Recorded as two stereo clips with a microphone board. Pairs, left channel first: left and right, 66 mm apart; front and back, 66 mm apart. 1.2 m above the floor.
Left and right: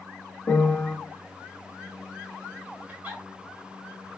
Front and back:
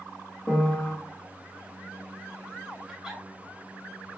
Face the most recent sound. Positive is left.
turn(degrees=-105)